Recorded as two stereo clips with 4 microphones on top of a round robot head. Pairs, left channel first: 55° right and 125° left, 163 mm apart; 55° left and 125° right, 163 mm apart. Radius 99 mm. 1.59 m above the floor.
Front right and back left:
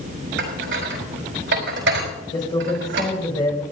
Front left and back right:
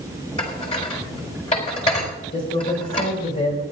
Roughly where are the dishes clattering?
Left.